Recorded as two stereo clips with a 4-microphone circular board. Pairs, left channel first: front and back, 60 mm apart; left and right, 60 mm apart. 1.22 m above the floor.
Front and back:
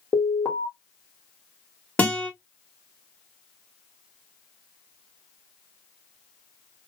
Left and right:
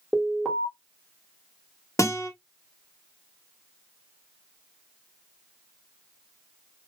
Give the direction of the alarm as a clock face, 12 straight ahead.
12 o'clock.